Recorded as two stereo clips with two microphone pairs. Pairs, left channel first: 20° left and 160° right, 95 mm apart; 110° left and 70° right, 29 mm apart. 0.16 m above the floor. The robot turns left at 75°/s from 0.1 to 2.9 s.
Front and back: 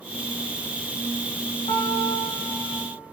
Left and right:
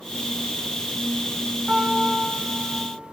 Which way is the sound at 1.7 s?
5° left.